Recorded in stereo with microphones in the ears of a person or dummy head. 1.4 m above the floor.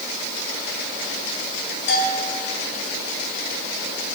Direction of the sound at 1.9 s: 70° left (ahead or behind).